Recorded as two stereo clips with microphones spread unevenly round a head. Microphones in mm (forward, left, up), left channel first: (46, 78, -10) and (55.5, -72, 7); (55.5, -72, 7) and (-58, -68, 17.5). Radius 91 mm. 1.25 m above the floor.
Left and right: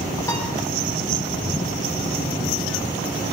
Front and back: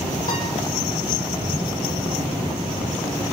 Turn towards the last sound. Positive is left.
turn(degrees=25)